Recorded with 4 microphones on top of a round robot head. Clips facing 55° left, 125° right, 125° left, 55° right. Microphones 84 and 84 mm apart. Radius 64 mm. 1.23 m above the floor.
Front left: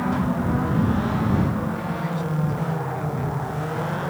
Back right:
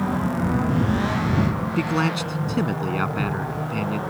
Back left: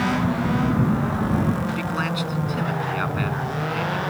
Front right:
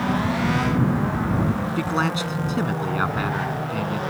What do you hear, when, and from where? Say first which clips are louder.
1.8 s a man speaking: back right 5 dB, front right 2 dB; 115° right